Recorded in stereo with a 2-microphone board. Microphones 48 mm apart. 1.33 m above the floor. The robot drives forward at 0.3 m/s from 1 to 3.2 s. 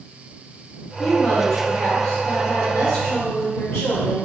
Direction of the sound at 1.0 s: 55° left (ahead or behind).